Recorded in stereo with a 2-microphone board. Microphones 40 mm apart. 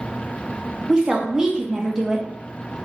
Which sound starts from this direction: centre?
A woman speaking, at 0.9 s.